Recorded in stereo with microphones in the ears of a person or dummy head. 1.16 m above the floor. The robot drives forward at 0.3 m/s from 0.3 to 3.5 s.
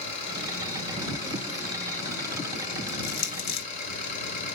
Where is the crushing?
65° left (ahead or behind), 1.2 m; by 3.7 s 60° left (ahead or behind), 1.2 m.